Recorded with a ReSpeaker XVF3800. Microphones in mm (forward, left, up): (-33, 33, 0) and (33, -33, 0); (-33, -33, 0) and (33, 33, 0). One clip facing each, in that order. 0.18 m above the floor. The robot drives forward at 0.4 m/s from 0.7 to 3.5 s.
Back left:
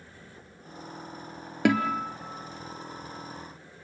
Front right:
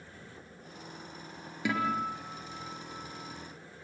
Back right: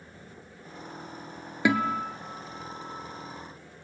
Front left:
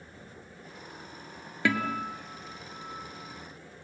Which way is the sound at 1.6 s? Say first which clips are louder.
Back left 6 dB, back right 3 dB; 155° left.